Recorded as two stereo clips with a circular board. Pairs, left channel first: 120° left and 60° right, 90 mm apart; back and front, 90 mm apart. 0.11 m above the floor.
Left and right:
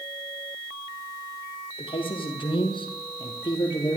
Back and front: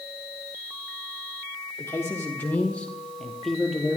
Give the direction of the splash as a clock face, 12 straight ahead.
No splash in this recording.